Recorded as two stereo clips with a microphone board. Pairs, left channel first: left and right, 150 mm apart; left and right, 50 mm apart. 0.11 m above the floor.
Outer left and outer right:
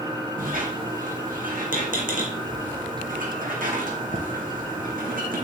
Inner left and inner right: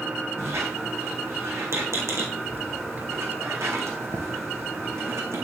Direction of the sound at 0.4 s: 80° right.